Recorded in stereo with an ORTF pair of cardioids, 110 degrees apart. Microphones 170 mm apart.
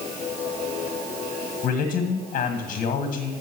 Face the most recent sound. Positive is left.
turn(degrees=55)